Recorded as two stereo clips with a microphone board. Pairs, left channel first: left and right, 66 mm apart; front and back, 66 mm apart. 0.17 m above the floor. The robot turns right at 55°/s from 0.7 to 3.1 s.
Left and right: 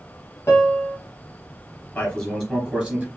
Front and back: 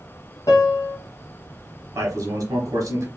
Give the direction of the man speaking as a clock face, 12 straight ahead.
7 o'clock.